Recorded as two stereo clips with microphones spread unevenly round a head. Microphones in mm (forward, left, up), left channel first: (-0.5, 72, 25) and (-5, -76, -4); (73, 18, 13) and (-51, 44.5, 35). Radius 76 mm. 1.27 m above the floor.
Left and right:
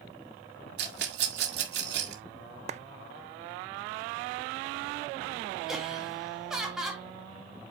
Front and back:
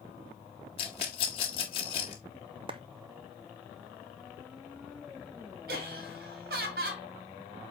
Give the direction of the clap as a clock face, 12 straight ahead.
4 o'clock.